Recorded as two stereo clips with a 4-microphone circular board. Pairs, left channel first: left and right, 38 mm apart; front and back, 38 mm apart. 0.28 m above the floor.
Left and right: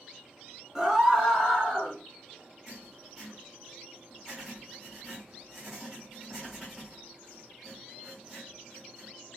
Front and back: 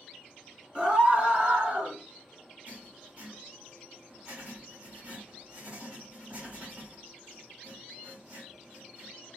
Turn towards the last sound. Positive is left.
turn(degrees=180)